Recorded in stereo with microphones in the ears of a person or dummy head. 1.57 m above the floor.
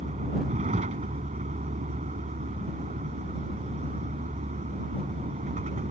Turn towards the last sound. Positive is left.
turn(degrees=-35)  # may be behind; listen again after turning